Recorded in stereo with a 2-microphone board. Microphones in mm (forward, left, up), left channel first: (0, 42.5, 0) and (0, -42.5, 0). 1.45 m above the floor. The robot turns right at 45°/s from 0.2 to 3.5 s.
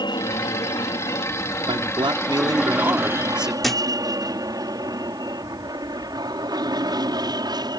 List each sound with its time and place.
0.0 s an aircraft: 60° left (ahead or behind); by 7.8 s 55° right (ahead or behind)
1.7 s a man speaking: 90° right; by 3.5 s 5° right
3.6 s a thud: centre (ahead or behind)